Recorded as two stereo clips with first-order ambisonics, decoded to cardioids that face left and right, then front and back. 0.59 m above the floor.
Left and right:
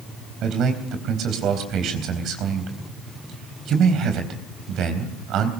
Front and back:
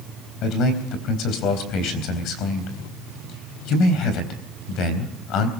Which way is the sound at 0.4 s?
45° right.